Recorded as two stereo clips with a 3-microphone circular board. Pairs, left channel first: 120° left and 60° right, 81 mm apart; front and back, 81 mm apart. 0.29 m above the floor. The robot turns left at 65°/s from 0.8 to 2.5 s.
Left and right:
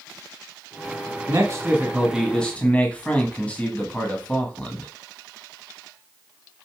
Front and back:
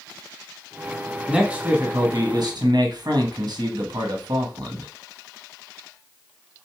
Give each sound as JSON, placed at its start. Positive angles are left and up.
{"t": 1.3, "sound": "a man speaking", "azimuth_deg": -90, "distance_m": 1.7}